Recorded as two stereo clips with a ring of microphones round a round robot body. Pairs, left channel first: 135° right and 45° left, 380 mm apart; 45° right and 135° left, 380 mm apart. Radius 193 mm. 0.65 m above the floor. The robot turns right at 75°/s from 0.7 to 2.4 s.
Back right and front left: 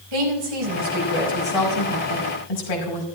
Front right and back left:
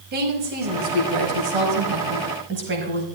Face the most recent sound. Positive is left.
turn(degrees=-165)